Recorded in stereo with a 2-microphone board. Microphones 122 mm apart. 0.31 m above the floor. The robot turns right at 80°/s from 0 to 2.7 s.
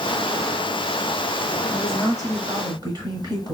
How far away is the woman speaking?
About 1.8 m.